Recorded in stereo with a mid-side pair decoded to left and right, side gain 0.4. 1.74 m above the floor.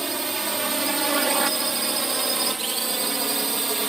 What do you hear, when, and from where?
0.0 s a drone: 30° right; by 3.9 s 25° right